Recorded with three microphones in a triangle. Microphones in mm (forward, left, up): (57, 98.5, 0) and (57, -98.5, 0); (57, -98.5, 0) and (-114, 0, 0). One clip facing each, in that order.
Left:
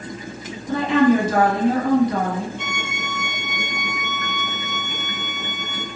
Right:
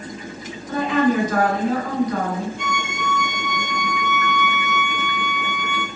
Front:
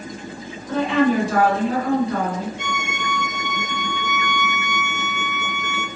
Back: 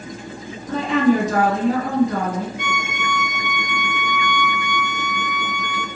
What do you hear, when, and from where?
0.7 s a woman speaking: 140° left, 2.0 m
2.6 s a violin: 5° left, 1.4 m